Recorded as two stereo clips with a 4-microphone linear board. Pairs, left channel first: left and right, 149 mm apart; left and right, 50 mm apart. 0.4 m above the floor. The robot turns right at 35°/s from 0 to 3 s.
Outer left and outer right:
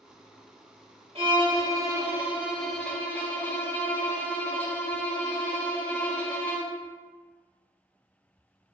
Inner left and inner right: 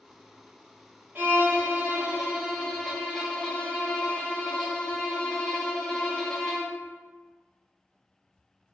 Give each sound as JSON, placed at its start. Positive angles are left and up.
{"t": 1.1, "sound": "a violin", "azimuth_deg": -50, "distance_m": 0.9}